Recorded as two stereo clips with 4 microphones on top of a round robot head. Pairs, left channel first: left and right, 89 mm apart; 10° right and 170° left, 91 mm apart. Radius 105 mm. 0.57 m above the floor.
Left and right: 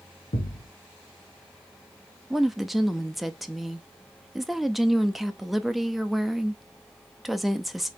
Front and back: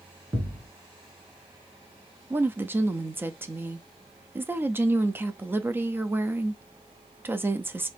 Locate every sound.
0.3 s a thud: 100° left, 1.6 m
2.3 s a woman speaking: 175° right, 0.6 m